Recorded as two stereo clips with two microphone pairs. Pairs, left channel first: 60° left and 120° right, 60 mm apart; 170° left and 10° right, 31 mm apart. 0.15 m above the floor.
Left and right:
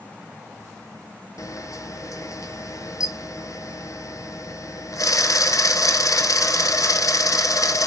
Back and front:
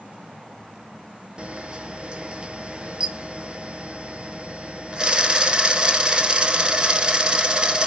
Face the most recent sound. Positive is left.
turn(degrees=50)